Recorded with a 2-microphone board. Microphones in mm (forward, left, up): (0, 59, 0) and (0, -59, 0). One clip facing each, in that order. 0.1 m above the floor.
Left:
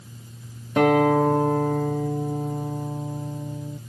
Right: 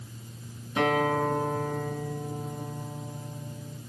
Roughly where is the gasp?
No gasp in this recording.